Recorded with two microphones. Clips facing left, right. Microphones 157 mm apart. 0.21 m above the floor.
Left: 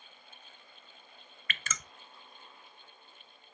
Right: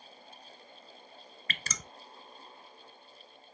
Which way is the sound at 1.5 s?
35° right (ahead or behind).